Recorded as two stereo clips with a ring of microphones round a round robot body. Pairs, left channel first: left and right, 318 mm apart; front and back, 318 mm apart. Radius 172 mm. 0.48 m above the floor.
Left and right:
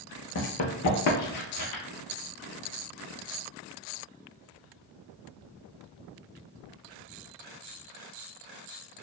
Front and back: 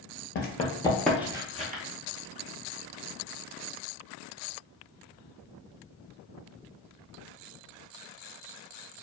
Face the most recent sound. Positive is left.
turn(degrees=125)